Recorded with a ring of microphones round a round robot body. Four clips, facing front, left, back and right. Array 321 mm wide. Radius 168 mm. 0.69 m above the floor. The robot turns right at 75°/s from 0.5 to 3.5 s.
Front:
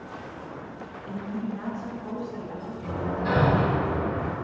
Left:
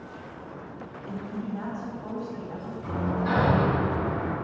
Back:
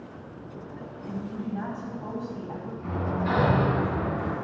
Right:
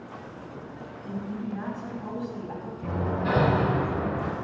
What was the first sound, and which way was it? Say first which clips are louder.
A woman speaking: right 1 dB, front 2 dB; 115° left.